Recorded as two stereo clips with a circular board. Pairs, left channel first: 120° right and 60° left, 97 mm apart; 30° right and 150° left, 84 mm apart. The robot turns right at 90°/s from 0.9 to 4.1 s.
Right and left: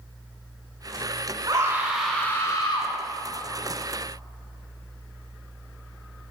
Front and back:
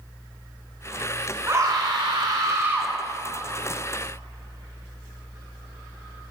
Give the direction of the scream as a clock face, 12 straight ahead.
9 o'clock.